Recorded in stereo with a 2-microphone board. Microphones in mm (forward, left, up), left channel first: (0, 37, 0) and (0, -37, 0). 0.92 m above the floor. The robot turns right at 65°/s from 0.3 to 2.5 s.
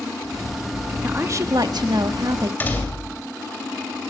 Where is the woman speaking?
150° right, 1.3 m; by 2.5 s 60° right, 1.3 m.